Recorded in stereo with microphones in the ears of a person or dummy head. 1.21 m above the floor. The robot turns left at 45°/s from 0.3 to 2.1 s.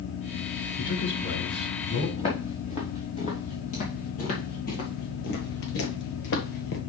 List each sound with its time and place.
0.8 s a man speaking: 160° left, 5.5 m; by 2.1 s 100° left, 5.5 m
2.2 s footsteps: 30° left (ahead or behind), 3.5 m; by 6.8 s 50° left (ahead or behind), 1.8 m